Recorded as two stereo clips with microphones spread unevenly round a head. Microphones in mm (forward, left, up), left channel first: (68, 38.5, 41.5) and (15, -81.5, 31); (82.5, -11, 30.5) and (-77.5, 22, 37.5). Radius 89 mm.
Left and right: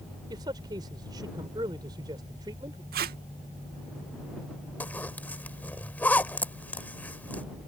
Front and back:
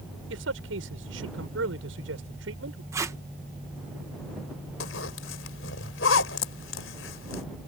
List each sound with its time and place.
0.3 s a man speaking: straight behind
2.9 s tape being pulled: 120° right
4.8 s a zipper: 10° right